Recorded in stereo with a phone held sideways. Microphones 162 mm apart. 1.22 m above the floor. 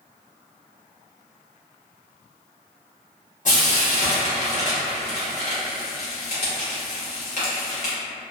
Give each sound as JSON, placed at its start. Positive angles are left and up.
{"t": 3.5, "sound": "frying", "side_deg": 50, "distance_m": 1.1}